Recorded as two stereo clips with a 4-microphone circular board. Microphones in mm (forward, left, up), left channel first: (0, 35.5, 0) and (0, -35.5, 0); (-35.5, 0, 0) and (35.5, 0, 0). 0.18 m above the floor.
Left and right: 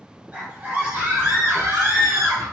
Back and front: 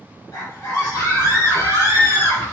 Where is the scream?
155° right, 2 m; by 2.4 s 130° right, 4 m.